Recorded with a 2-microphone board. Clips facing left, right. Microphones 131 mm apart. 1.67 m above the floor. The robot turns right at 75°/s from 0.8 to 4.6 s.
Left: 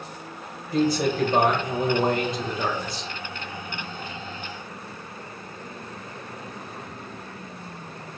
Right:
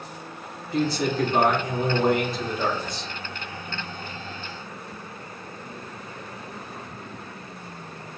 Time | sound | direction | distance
0.7 | a man speaking | 45° left | 1.1 m